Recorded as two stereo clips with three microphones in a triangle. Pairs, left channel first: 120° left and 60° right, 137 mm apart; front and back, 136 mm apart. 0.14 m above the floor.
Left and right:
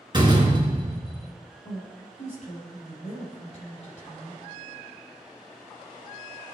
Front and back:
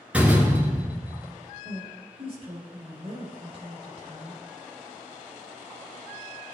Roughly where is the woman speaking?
Behind left.